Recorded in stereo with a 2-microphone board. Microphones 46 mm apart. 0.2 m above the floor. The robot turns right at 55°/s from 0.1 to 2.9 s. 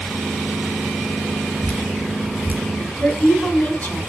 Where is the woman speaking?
35° left (ahead or behind), 1.3 m.